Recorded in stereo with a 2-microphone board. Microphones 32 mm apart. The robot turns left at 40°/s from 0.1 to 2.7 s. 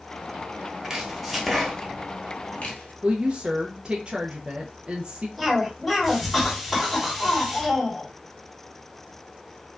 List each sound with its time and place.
0.8 s chopping: 25° right (ahead or behind), 1.4 m; by 2.9 s 50° left (ahead or behind), 1.4 m
3.0 s a woman speaking: 30° right (ahead or behind), 0.6 m
5.4 s a cough: 5° left (ahead or behind), 3 m